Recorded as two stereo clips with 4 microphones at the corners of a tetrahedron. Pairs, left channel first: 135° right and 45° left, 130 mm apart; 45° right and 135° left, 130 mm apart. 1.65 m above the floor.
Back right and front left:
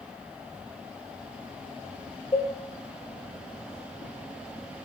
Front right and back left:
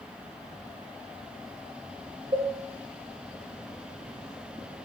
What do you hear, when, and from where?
2.3 s a cowbell: 175° left, 0.9 m